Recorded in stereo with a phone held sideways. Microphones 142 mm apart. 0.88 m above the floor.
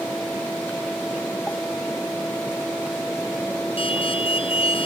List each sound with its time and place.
0.0 s a fan: 10° left (ahead or behind)
3.8 s an alarm: 40° left (ahead or behind)